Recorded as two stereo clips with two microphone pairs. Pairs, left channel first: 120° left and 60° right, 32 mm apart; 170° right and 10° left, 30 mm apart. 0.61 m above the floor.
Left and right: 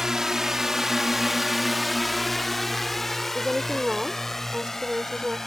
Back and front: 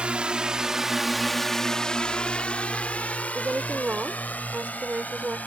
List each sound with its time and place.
0.0 s a drone: straight ahead; by 5.5 s 165° right
3.4 s a woman speaking: 5° right